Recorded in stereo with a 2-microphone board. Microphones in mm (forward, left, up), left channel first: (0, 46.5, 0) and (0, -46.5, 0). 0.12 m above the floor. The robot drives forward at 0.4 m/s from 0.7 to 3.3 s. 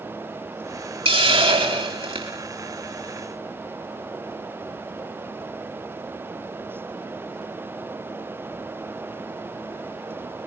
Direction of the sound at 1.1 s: 80° right.